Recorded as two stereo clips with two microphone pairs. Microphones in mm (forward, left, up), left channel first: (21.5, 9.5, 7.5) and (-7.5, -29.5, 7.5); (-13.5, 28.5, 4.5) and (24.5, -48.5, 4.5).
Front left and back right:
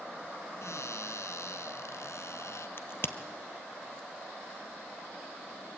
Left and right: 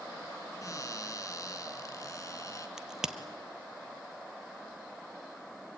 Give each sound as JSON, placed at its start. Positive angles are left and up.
{"t": 0.6, "sound": "a cupboard door", "azimuth_deg": 65, "distance_m": 1.7}
{"t": 2.8, "sound": "a crack", "azimuth_deg": 20, "distance_m": 1.2}